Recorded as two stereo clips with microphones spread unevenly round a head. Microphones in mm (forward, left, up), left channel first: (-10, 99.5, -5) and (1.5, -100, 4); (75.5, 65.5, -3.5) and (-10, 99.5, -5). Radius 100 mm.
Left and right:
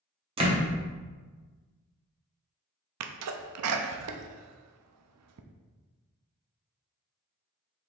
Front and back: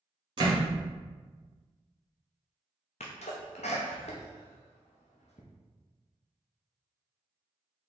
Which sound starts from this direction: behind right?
A door slam, at 0.4 s.